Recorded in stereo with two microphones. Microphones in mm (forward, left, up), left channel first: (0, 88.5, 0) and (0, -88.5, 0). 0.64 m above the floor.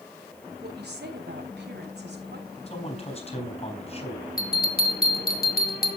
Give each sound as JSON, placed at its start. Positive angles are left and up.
{"t": 0.6, "sound": "a woman speaking", "side_deg": -70, "distance_m": 2.5}
{"t": 2.7, "sound": "a man speaking", "side_deg": 35, "distance_m": 4.0}
{"t": 4.4, "sound": "a bell", "side_deg": 60, "distance_m": 2.5}